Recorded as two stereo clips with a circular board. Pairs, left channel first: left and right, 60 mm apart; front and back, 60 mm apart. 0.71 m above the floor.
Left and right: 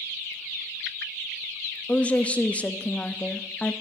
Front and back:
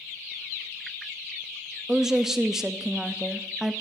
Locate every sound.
1.9 s a woman speaking: 110° left, 0.5 m